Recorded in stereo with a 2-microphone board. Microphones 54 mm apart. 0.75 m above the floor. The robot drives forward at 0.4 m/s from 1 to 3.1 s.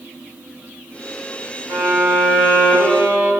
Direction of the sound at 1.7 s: 75° right (ahead or behind).